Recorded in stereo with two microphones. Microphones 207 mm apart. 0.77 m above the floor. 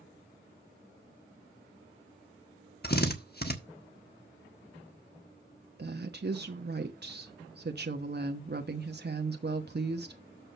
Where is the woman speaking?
50° right (ahead or behind), 1.0 m.